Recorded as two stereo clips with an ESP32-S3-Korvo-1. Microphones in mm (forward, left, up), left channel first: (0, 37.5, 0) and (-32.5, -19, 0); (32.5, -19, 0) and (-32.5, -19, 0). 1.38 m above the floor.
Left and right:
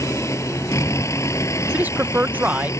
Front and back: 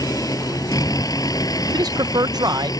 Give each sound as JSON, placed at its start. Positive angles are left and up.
{"t": 0.0, "sound": "a vehicle", "azimuth_deg": 20}
{"t": 1.7, "sound": "a man speaking", "azimuth_deg": 175}